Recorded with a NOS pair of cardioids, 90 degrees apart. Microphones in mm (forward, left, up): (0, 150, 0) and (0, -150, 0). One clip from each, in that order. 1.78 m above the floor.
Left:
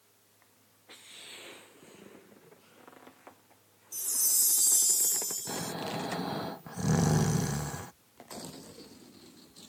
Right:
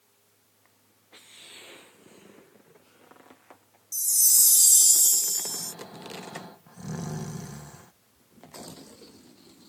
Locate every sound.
3.9 s a chime: 35° right
5.5 s snoring: 55° left